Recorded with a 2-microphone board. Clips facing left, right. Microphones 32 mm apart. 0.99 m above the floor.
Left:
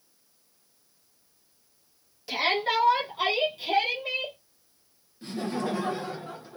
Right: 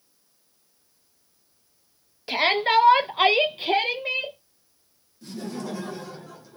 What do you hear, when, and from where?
2.3 s a shout: 40° right (ahead or behind), 0.8 m; by 4.4 s 25° right (ahead or behind), 0.8 m
5.2 s laughter: 40° left (ahead or behind), 0.6 m